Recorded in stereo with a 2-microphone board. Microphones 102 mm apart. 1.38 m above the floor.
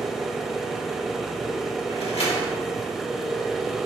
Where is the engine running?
5° right (ahead or behind), 1.7 m.